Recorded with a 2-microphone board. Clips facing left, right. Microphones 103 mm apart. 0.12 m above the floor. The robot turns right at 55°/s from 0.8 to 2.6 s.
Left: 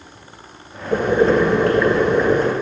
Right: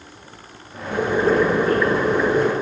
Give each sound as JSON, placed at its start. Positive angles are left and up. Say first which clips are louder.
{"t": 0.9, "sound": "boiling", "louder": "left 3 dB", "azimuth_deg": 50, "distance_m": 2.5}